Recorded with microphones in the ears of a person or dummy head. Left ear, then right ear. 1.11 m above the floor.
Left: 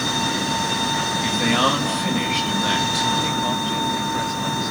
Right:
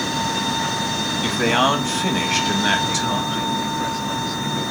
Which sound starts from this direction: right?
A man speaking, at 1.2 s.